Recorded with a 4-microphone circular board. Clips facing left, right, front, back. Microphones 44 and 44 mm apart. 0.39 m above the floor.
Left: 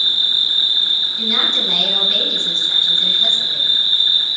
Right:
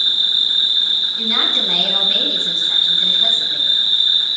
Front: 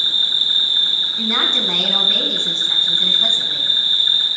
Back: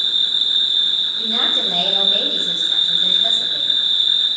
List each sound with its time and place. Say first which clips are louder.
0.0 s an insect: even, front 1 dB; 10° left, 3.5 m
1.2 s a woman speaking: even, front 3 dB; 10° right, 3 m